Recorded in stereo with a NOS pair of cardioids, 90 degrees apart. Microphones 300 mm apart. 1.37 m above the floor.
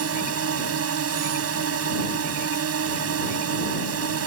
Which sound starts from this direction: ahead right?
A drone, at 0.0 s.